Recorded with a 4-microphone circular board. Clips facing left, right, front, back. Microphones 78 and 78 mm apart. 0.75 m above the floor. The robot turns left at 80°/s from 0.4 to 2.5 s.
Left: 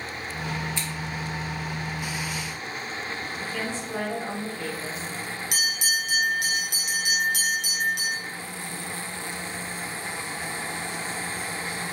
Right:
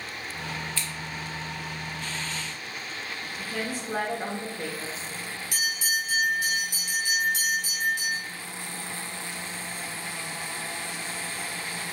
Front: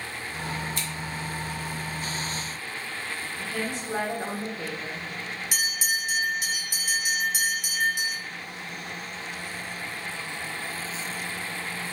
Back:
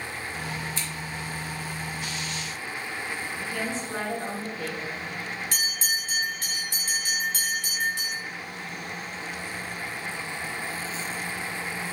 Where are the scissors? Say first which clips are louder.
Left 2 dB, front 1 dB; 20° left, 1.0 m; by 0.9 s 10° left, 1.0 m.